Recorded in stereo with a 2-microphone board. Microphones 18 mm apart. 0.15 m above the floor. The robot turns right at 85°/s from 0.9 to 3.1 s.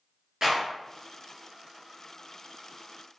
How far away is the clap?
About 1.8 m.